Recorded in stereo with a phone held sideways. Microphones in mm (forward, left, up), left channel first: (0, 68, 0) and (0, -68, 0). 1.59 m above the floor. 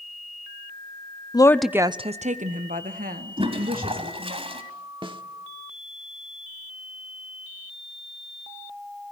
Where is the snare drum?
35° right (ahead or behind), 1.3 m.